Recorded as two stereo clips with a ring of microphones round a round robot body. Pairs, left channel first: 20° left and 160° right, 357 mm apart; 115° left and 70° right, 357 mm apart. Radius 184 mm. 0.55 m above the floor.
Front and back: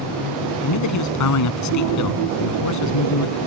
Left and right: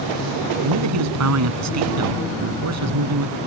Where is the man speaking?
20° right.